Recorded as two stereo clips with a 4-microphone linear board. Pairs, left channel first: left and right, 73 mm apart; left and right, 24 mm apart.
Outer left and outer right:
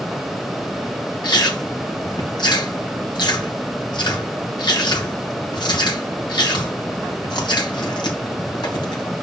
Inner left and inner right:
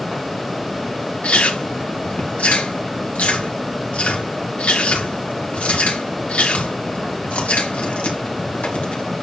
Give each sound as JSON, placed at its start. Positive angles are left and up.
{"t": 1.2, "sound": "chewing", "side_deg": 85, "distance_m": 2.5}